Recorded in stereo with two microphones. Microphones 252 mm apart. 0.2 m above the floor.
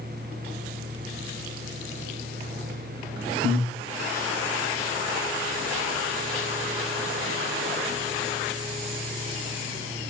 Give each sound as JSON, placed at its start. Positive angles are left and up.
{"t": 3.4, "sound": "breathing", "side_deg": -70, "distance_m": 4.0}